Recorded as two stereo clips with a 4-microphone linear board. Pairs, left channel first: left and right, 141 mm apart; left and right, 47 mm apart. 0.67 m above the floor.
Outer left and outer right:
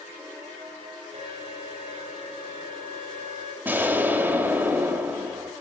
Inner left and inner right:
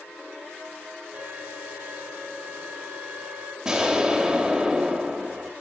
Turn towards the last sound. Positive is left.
turn(degrees=-15)  # may be behind; listen again after turning